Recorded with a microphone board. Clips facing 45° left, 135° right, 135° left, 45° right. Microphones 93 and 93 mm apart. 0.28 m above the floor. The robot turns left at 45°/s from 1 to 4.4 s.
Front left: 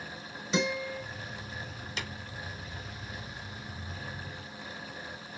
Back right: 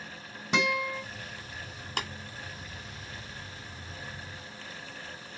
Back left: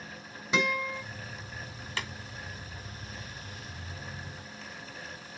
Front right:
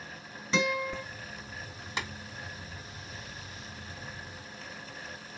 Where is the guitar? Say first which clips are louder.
Back right 2 dB, even; 150° right, 3 m.